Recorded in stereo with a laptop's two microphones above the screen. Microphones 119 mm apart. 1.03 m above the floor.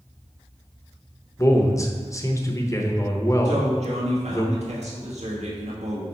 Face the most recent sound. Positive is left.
turn(degrees=-70)  # may be behind; listen again after turning